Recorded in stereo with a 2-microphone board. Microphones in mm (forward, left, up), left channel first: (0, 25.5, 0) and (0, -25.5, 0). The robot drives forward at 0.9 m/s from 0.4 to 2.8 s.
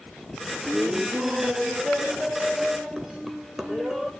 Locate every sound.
0.7 s laughter: 25° right (ahead or behind), 1.0 m; by 4.1 s 10° right (ahead or behind), 2.5 m